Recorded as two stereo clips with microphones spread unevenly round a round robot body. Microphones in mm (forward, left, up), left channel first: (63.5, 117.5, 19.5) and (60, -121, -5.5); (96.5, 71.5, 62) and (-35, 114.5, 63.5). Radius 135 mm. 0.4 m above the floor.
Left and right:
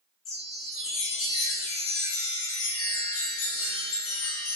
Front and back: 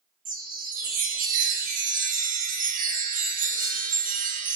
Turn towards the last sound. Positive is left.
turn(degrees=135)